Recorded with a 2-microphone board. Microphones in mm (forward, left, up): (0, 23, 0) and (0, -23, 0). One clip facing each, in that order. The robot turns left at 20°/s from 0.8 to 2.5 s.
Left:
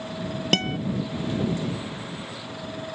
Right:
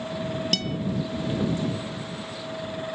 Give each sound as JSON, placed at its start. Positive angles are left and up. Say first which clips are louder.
{"t": 0.5, "sound": "a guitar", "louder": "left 4 dB", "side_deg": 40}